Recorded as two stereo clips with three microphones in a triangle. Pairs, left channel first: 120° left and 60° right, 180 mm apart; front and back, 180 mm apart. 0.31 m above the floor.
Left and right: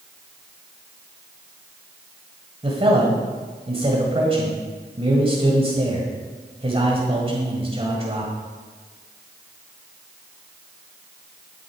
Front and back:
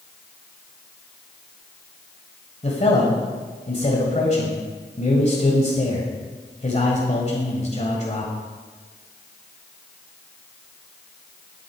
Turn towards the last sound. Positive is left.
turn(degrees=-20)